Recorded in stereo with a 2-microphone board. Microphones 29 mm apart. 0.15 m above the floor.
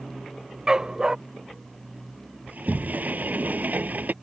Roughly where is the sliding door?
Right.